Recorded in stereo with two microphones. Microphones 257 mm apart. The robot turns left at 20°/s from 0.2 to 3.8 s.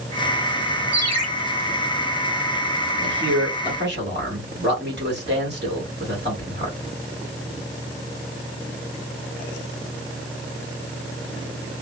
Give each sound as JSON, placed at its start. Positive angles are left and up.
{"t": 0.9, "sound": "a ringtone", "side_deg": -80, "distance_m": 1.3}
{"t": 3.0, "sound": "a man speaking", "side_deg": -45, "distance_m": 1.6}